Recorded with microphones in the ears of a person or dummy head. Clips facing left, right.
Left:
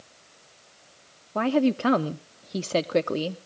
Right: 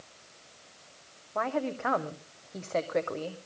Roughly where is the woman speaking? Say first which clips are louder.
Left 9 dB; left.